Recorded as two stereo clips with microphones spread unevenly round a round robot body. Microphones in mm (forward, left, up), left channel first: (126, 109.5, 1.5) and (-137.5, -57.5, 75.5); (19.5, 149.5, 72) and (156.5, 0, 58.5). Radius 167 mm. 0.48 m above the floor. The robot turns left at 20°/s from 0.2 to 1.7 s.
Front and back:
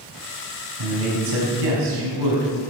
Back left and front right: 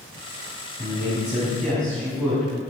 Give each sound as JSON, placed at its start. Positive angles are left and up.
{"t": 0.8, "sound": "a man speaking", "azimuth_deg": -125, "distance_m": 4.0}